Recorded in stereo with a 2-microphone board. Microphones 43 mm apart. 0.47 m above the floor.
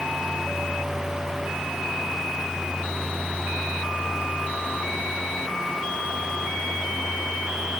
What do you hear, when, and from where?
Only background noise.